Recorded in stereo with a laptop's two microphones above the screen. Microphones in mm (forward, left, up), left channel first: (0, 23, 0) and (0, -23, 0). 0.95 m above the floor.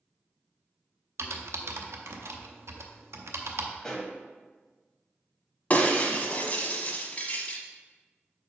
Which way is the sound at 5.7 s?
40° left (ahead or behind).